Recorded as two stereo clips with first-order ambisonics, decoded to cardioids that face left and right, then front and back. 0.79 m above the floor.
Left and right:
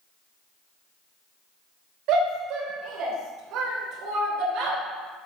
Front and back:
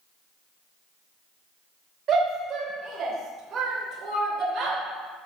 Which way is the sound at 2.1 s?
120° right.